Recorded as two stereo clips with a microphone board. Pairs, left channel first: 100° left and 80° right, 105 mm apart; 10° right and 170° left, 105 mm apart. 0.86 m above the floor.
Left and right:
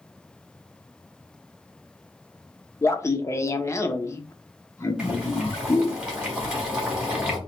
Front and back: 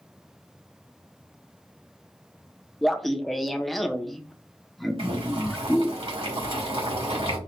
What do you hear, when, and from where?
2.8 s laughter: 75° left, 0.5 m
5.0 s boiling: 160° right, 1.5 m